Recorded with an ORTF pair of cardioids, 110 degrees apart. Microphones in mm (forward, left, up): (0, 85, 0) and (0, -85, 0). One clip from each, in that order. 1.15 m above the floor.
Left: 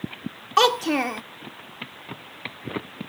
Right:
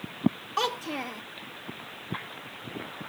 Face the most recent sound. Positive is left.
turn(degrees=50)